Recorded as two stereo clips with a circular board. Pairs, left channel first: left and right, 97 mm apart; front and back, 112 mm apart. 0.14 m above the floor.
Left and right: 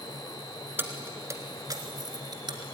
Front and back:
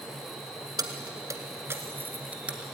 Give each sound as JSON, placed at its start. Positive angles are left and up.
{"t": 0.8, "sound": "keys jangling", "azimuth_deg": -145, "distance_m": 1.3}